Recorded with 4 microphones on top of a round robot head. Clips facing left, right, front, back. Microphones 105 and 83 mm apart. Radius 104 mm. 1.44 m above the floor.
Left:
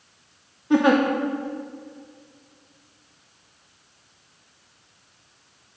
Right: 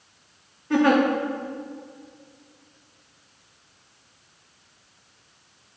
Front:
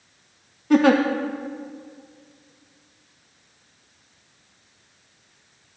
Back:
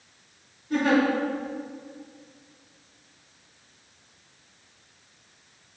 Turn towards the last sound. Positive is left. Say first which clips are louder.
# left 1 dB, front 6 dB
turn(degrees=15)